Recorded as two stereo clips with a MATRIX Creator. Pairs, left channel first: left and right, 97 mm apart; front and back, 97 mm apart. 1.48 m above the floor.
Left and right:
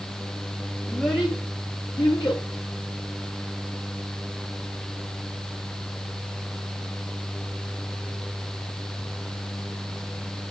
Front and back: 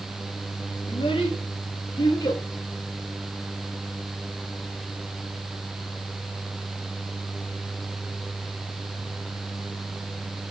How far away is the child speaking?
About 2.5 m.